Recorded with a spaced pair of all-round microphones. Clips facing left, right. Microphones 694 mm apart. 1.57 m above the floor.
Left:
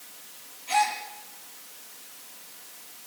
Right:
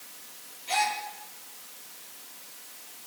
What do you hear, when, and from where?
0.7 s a gasp: 65° right (ahead or behind), 7 m